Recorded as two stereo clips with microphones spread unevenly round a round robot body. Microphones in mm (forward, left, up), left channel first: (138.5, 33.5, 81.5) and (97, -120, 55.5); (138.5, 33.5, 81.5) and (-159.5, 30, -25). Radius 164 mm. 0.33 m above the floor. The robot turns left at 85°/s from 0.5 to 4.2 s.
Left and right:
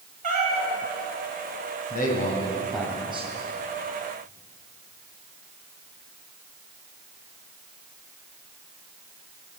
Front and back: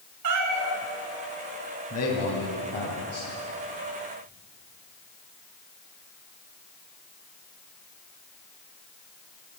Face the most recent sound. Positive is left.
turn(degrees=-140)